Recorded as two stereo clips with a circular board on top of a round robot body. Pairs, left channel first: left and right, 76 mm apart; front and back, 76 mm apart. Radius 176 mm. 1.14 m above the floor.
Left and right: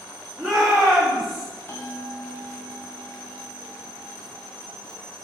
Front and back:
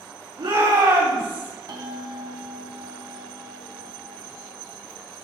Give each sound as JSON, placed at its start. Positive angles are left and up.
{"t": 0.4, "sound": "a shout", "azimuth_deg": -175, "distance_m": 5.0}
{"t": 1.7, "sound": "a bell", "azimuth_deg": 145, "distance_m": 2.5}